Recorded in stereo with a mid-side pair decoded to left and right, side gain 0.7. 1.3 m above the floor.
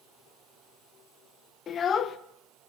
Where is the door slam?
No door slam in this recording.